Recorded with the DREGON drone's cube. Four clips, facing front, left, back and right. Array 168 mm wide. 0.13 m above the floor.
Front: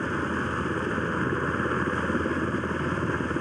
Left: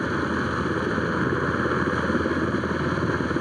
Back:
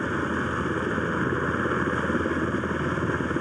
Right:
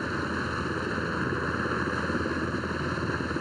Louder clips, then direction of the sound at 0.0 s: Left 6 dB, back 1 dB; 105° left.